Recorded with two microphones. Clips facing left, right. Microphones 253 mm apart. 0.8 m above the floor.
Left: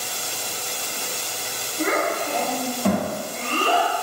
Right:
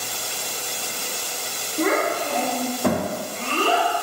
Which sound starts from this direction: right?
A child speaking, at 1.8 s.